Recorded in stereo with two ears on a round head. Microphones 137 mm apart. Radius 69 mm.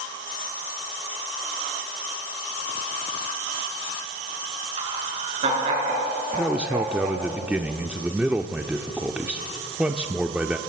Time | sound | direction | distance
4.8 | laughter | 45° right (ahead or behind) | 7 m
6.3 | a man speaking | 10° right (ahead or behind) | 0.8 m